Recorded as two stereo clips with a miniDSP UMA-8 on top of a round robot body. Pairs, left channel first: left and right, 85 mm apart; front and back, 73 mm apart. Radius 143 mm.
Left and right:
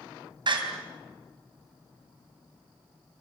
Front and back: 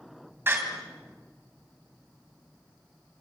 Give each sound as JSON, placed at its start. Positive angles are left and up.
{"t": 0.5, "sound": "a door slam", "azimuth_deg": -120, "distance_m": 3.5}